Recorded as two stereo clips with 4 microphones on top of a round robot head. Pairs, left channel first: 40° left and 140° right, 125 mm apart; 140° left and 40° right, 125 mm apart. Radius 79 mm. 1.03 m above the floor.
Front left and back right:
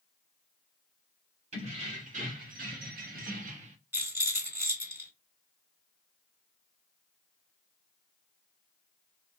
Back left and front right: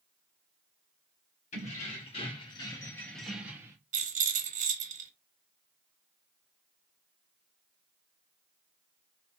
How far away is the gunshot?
I don't hear a gunshot.